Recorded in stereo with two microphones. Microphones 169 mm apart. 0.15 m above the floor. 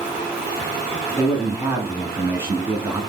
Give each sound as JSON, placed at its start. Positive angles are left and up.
{"t": 1.2, "sound": "a man speaking", "side_deg": -15, "distance_m": 1.3}